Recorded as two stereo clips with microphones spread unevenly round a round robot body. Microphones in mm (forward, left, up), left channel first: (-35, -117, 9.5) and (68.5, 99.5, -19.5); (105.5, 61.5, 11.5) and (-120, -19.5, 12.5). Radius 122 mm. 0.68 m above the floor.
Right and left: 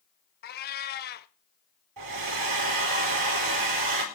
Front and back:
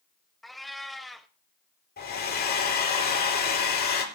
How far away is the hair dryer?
About 4 m.